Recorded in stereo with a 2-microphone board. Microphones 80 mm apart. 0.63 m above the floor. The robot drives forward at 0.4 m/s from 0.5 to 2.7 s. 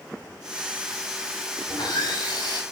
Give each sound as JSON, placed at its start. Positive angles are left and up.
{"t": 1.7, "sound": "sawing", "side_deg": 70, "distance_m": 3.5}